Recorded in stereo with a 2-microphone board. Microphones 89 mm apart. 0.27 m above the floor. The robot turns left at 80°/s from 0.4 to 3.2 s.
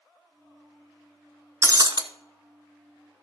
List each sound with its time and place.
1.6 s breaking glass: 35° right, 0.7 m; by 2.0 s 65° right, 0.7 m